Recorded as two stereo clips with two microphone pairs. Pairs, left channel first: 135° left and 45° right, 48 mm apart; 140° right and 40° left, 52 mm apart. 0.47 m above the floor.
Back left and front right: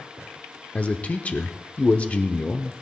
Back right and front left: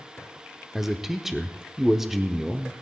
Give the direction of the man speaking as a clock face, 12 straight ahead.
8 o'clock.